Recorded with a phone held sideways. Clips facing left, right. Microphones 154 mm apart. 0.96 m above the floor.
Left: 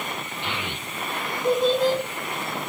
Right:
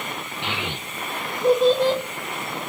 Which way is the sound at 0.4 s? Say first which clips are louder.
Right 4 dB; 60° right (ahead or behind).